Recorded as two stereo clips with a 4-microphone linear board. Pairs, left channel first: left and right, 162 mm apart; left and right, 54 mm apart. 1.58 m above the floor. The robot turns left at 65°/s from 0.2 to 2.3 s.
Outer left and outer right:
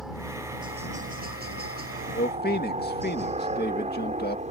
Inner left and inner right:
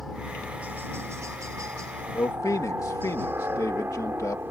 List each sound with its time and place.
0.0 s a helicopter: centre (ahead or behind); by 4.5 s 45° right (ahead or behind)
2.1 s a man speaking: 85° left; by 4.4 s 75° left (ahead or behind)